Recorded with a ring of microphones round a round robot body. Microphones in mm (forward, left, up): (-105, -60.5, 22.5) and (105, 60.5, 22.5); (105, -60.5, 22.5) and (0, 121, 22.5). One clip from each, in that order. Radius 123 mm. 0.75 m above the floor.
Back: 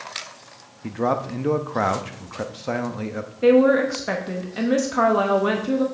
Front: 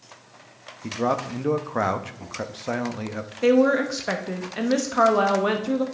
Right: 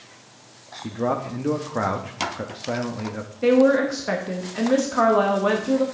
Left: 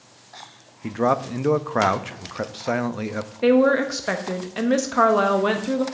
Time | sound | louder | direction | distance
0.8 | a man speaking | back 1 dB, left 4 dB | 110° left | 0.6 m
3.4 | a woman speaking | back 3 dB, even | 100° left | 0.9 m